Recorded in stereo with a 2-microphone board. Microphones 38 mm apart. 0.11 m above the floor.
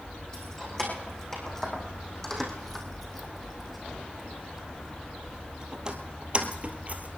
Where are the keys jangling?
15° left (ahead or behind), 4 m; by 7.2 s 45° right (ahead or behind), 1.7 m.